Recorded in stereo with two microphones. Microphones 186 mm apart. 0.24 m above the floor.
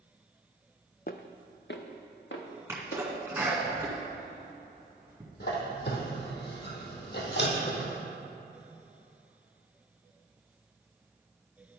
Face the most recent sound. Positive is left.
turn(degrees=70)  # may be behind; listen again after turning